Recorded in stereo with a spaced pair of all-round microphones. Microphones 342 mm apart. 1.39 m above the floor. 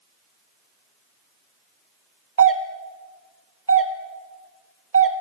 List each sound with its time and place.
2.4 s a doorbell: 40° right (ahead or behind), 0.8 m